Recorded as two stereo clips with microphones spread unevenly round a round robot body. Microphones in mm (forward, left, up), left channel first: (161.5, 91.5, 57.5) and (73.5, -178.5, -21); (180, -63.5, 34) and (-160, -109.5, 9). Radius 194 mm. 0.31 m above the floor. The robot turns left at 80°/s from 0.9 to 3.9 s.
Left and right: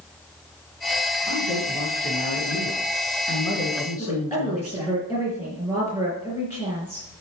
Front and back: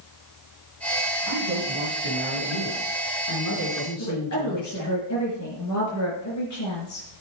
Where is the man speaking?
165° left, 4.5 m; by 5.0 s 50° right, 4.5 m.